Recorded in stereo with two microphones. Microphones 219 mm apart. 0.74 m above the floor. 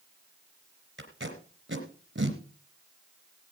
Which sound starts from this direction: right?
Tape being pulled, at 1.0 s.